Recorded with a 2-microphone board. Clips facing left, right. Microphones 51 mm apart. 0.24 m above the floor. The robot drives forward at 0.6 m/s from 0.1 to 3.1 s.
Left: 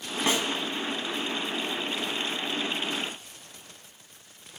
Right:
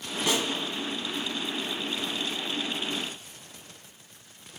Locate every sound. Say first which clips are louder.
0.3 s a snare drum: left 1 dB; 35° left (ahead or behind), 0.9 m; by 0.5 s 30° left (ahead or behind), 0.9 m